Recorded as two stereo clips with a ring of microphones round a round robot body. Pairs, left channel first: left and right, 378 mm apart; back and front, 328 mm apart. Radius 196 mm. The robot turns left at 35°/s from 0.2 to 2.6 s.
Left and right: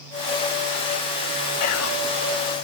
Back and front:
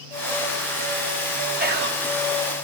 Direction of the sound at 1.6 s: 55° left.